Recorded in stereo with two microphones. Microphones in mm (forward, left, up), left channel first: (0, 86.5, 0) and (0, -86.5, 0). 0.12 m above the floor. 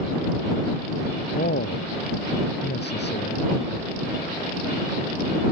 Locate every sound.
1.4 s a man speaking: 80° left; by 3.5 s 85° left